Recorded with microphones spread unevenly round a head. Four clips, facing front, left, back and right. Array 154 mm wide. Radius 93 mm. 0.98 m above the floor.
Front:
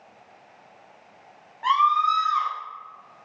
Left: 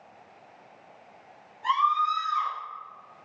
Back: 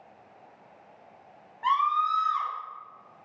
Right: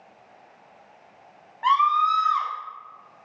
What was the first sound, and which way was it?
A scream, 75° right.